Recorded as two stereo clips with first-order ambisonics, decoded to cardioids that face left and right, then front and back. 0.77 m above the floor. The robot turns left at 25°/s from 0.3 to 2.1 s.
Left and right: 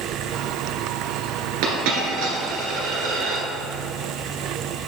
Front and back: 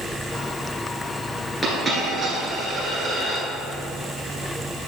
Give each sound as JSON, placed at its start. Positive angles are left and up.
{"t": 1.6, "sound": "a dropped coin", "azimuth_deg": -95, "distance_m": 2.5}